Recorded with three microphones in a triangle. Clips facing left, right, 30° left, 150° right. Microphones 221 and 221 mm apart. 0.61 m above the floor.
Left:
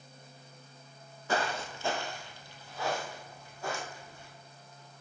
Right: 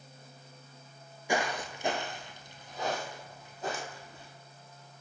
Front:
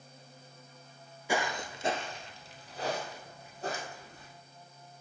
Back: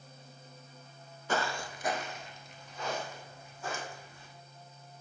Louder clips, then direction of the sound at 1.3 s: Right 1 dB, front 1 dB; 35° right.